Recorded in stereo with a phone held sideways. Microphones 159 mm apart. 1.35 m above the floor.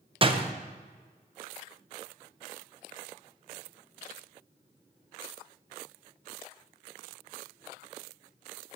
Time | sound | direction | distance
0.2 | a door slam | 35° right (ahead or behind) | 0.6 m